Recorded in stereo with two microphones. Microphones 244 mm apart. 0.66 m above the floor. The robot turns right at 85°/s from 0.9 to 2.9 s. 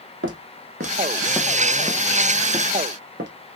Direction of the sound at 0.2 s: 55° right (ahead or behind).